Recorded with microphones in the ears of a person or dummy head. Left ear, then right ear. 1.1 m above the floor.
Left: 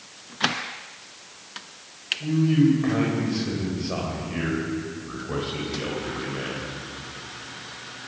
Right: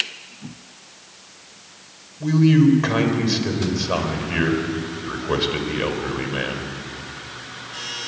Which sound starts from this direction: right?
A man speaking, at 2.2 s.